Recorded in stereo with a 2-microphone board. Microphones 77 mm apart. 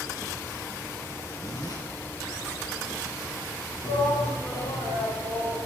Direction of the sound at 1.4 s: 55° left (ahead or behind).